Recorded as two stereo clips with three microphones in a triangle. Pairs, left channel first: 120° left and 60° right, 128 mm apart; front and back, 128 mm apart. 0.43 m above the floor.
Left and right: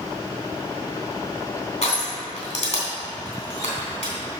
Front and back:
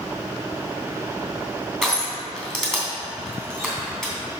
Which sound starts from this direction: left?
Crushing, at 1.8 s.